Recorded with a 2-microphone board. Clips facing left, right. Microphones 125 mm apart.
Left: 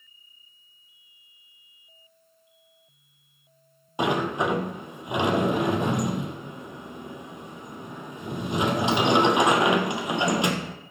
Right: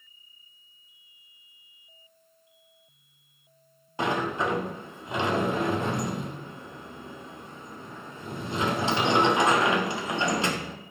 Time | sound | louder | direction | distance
4.0 | a sliding door | left 3 dB | 20° left (ahead or behind) | 1.5 m